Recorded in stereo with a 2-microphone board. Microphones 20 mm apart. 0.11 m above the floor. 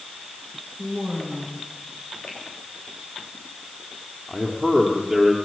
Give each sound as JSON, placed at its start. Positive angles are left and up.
{"t": 0.8, "sound": "a woman speaking", "side_deg": 0, "distance_m": 9.0}
{"t": 2.3, "sound": "a finger snap", "side_deg": 65, "distance_m": 6.0}
{"t": 4.3, "sound": "a man speaking", "side_deg": -5, "distance_m": 3.0}